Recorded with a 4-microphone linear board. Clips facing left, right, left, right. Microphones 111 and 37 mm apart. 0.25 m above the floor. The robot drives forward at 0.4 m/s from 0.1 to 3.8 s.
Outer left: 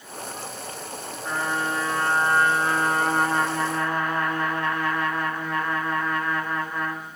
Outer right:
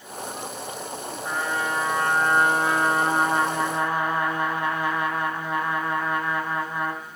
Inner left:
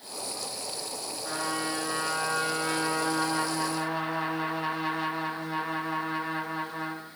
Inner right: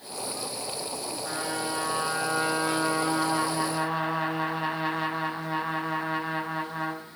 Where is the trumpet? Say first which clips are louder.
Even, inner left 1 dB; 5° right (ahead or behind), 1.7 m; by 7.0 s 15° right (ahead or behind), 0.8 m.